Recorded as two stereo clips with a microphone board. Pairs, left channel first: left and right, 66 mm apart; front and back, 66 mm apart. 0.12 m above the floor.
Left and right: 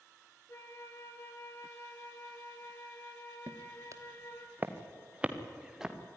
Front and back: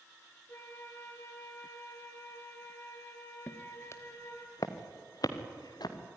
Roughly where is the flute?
Ahead left.